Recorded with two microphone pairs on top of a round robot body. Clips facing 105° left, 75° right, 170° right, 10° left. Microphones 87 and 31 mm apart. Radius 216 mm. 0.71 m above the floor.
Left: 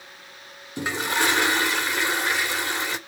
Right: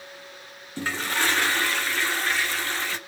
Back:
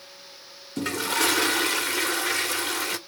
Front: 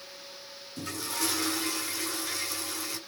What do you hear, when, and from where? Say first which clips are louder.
0.8 s a toilet flushing: left 2 dB, back 9 dB; straight behind, 1.7 m